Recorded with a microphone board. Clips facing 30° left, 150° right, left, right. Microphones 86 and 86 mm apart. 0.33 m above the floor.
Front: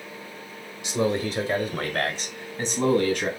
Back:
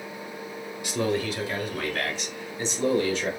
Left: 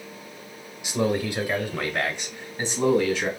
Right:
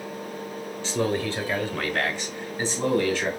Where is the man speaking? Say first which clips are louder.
Front 2 dB, left 1 dB; 35° left, 1.0 m; by 3.3 s 15° left, 2 m.